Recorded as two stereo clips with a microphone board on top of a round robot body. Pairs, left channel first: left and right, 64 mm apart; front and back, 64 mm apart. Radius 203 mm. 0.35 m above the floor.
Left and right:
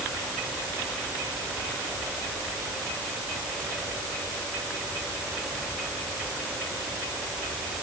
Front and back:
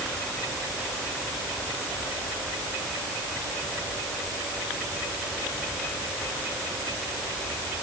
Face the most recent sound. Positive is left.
No sound to turn to.